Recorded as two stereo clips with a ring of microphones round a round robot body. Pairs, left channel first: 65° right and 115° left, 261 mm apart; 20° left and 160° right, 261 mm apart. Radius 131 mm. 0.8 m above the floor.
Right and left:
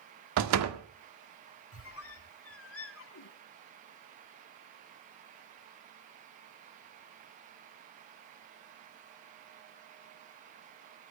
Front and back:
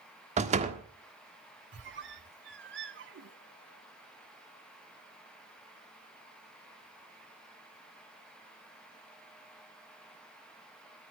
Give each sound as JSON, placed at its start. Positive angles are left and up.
{"t": 0.4, "sound": "a door slam", "azimuth_deg": 140, "distance_m": 1.6}
{"t": 1.7, "sound": "a squeak", "azimuth_deg": -110, "distance_m": 1.1}